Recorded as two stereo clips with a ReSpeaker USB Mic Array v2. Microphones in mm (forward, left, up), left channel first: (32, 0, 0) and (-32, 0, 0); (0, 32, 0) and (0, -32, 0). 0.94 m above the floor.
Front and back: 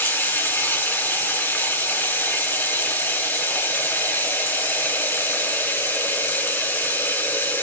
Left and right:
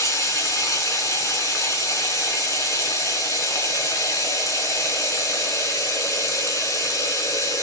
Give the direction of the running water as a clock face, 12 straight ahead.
10 o'clock.